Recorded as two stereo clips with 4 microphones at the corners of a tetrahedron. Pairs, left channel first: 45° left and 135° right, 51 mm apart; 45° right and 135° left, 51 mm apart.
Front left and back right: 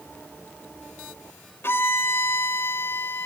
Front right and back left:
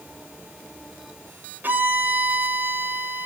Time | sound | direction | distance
1.6 | a violin | 80° left | 2.5 m